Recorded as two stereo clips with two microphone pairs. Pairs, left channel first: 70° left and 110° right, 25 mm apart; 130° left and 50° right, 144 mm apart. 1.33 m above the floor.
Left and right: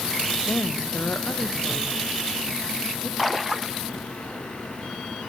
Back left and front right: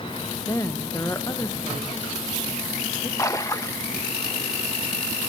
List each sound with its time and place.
0.5 s a woman speaking: 60° left, 1.2 m; by 3.1 s 55° left, 3 m
3.2 s a splash: 165° left, 0.6 m